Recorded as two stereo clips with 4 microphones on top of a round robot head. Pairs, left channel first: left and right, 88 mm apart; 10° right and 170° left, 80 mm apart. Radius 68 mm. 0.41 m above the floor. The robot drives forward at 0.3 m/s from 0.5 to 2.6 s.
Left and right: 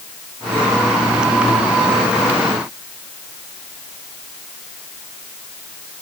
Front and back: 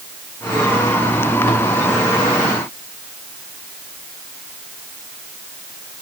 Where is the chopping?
I don't hear chopping.